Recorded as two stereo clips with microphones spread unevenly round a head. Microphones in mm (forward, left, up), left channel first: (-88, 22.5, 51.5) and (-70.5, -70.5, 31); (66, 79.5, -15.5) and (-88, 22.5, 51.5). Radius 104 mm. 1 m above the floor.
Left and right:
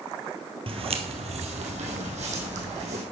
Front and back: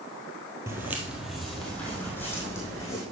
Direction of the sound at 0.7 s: 105° right.